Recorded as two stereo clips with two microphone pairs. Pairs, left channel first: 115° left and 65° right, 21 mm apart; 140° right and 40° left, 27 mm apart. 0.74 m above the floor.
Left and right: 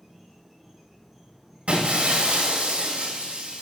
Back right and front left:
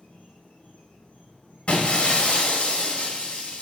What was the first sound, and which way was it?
An insect, 160° right.